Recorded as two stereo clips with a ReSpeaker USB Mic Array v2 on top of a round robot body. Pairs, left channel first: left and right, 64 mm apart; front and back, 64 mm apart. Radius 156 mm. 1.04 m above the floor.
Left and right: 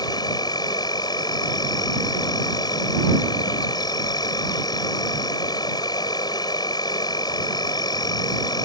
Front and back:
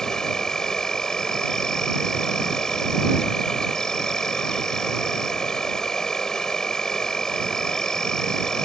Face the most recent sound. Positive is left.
turn(degrees=80)